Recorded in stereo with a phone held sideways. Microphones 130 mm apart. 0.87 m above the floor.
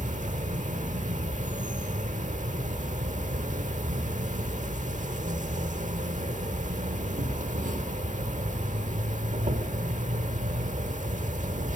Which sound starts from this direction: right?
An insect, at 0.0 s.